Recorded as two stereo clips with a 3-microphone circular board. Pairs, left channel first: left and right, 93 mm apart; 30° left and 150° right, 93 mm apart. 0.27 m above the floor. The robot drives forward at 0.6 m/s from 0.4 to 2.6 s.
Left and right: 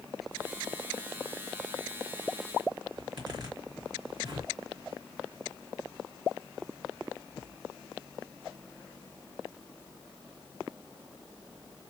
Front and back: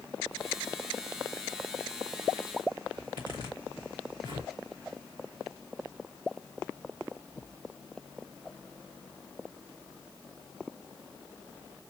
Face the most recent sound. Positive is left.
turn(degrees=-125)